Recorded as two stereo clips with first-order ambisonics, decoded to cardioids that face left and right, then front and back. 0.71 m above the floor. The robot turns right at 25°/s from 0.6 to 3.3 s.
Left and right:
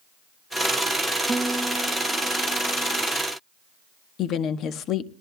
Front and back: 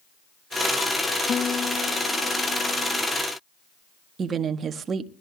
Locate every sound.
1.3 s a guitar: 25° right, 0.5 m; by 3.1 s 20° left, 0.5 m
4.2 s a woman speaking: 125° left, 0.9 m